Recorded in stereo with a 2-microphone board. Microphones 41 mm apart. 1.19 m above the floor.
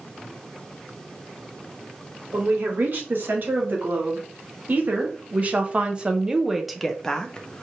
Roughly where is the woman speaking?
Right.